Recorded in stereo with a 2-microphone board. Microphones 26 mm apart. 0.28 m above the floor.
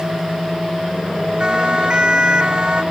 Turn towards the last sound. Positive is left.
turn(degrees=-35)  # may be behind; listen again after turning